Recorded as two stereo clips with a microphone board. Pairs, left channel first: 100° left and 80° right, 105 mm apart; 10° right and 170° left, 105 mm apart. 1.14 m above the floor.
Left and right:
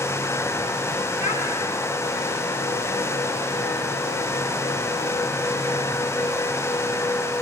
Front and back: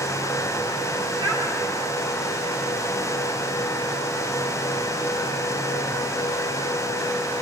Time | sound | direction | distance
1.2 | a child speaking | 140° right | 7 m